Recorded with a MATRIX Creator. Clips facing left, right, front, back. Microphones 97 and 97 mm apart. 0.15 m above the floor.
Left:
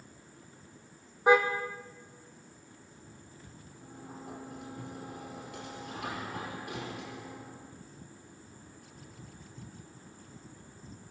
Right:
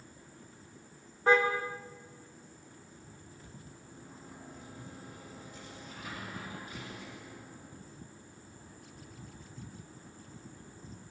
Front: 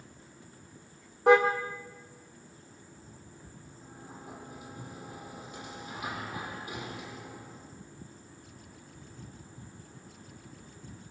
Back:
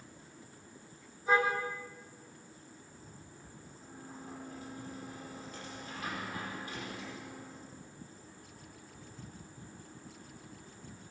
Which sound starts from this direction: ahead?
A car horn, at 1.3 s.